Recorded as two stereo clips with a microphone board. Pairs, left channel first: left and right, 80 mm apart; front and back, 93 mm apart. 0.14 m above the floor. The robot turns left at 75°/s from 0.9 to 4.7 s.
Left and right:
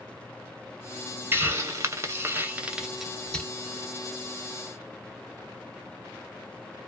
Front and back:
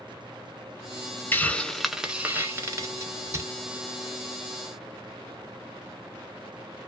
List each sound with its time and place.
1.3 s a hiss: 50° right, 0.5 m; by 3.5 s 150° left, 0.5 m